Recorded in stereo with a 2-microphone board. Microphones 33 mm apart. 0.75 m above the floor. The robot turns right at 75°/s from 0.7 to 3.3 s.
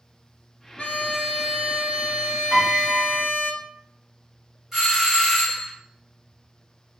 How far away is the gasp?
No gasp in this recording.